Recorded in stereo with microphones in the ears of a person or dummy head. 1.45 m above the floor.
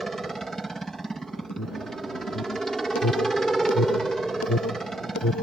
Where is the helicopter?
Centre (ahead or behind).